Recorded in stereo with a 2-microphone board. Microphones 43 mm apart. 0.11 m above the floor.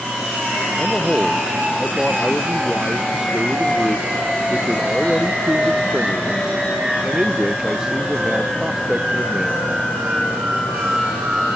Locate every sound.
0.8 s a man speaking: 15° right (ahead or behind)